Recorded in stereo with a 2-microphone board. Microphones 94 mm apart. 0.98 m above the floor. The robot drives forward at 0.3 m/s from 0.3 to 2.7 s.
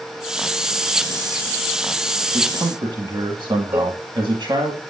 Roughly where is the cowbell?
Centre.